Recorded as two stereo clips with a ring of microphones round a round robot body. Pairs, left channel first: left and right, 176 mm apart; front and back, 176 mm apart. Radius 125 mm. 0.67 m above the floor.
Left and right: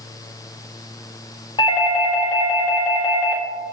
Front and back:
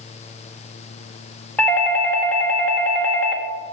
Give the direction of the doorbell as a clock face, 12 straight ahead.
10 o'clock.